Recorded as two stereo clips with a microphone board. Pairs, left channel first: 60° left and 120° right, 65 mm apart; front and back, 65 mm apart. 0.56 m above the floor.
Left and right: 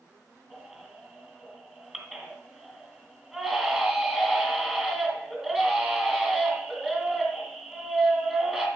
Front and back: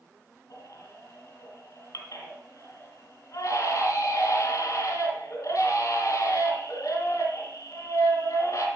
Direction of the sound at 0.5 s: 40° right.